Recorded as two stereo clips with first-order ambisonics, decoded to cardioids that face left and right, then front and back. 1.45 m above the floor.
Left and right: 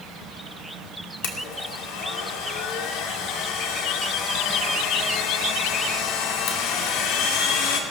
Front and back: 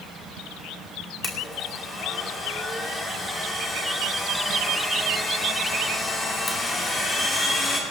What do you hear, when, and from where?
1.2 s a blender: 75° left, 2.5 m